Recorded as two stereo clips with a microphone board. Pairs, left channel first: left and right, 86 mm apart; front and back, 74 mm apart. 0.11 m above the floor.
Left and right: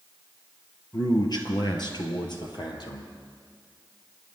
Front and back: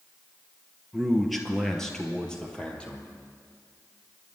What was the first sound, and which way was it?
A man speaking, 95° left.